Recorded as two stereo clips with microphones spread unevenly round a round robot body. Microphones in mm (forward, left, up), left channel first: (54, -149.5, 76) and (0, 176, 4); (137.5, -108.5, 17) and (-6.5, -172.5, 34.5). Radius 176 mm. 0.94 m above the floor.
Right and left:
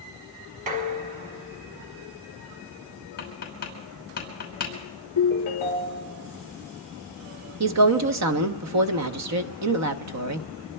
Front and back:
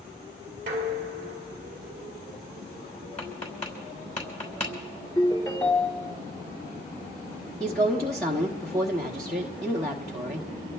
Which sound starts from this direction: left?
A woman speaking, at 7.6 s.